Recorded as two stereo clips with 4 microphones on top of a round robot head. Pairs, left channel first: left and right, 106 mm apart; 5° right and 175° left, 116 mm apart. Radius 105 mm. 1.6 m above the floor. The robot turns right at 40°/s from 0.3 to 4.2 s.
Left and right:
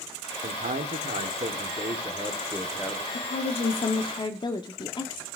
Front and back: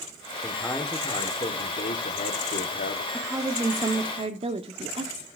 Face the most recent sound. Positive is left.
turn(degrees=135)